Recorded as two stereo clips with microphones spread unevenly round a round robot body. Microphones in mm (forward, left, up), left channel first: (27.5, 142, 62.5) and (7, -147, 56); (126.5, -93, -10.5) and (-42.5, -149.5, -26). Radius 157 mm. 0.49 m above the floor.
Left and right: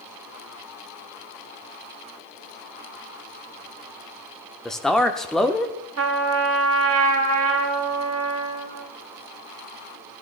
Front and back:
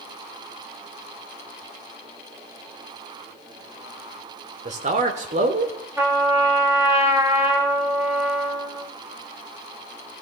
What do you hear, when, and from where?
4.7 s a man speaking: 175° left, 1.1 m
6.0 s a trumpet: 90° right, 2 m